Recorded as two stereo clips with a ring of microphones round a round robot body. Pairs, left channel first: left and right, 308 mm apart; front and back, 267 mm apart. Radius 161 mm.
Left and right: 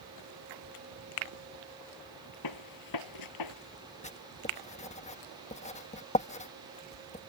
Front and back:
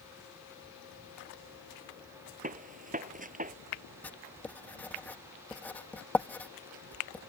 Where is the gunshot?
120° left.